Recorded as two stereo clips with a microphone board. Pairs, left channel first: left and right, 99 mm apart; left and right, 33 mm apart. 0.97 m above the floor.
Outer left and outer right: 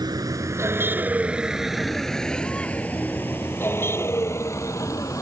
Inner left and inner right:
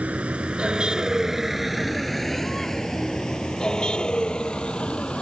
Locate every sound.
0.0 s a vehicle: 45° right (ahead or behind); by 5.2 s 35° left (ahead or behind)